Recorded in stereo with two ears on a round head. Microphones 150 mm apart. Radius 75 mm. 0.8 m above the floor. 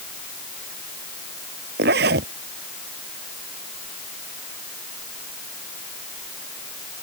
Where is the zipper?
70° right (ahead or behind).